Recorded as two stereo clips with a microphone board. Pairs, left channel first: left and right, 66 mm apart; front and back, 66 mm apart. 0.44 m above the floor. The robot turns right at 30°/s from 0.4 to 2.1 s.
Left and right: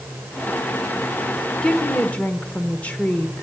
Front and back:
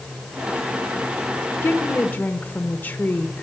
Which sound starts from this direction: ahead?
A woman speaking, at 1.6 s.